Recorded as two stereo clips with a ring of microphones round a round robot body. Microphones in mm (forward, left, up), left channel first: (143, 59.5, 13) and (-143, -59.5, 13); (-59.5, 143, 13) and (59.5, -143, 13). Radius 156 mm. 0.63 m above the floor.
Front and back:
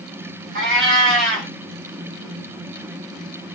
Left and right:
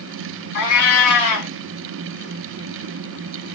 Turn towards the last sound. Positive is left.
turn(degrees=150)